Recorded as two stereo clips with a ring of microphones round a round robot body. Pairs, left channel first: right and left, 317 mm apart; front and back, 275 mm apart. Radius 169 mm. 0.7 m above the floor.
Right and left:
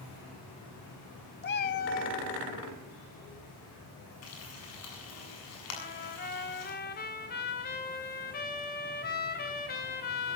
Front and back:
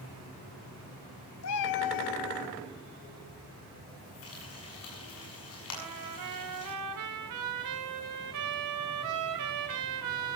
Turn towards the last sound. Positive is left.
turn(degrees=-150)